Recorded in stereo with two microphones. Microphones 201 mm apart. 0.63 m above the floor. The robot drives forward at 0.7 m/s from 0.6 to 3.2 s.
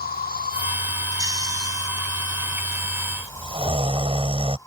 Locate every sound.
0.0 s an insect: 50° left (ahead or behind); by 4.7 s 15° left (ahead or behind)
1.2 s snoring: 20° right (ahead or behind); by 4.6 s 30° right (ahead or behind)